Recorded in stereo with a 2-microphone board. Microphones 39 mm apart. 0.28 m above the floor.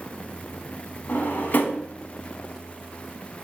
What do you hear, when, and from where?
1.1 s a drawer: 55° left (ahead or behind), 0.6 m